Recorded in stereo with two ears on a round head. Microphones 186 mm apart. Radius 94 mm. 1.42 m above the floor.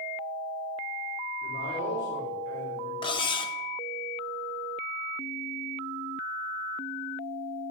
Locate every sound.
1.4 s a man speaking: 40° left (ahead or behind), 4 m
3.0 s cutlery clinking: 25° left (ahead or behind), 0.7 m